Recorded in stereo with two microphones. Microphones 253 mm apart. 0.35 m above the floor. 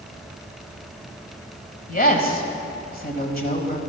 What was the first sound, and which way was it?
A woman speaking, 35° left (ahead or behind).